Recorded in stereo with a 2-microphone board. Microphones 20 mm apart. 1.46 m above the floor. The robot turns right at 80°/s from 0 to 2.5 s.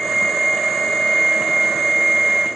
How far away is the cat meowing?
I don't hear a cat meowing.